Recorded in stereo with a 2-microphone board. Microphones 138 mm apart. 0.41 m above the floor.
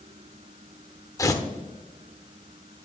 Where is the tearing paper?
25° left (ahead or behind), 0.8 m.